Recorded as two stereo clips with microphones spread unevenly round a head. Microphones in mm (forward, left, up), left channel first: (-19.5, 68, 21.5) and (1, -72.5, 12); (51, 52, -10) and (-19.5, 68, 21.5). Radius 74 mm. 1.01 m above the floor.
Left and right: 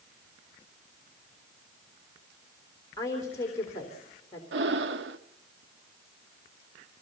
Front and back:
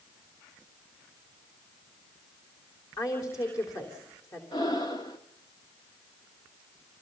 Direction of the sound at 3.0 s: 30° left.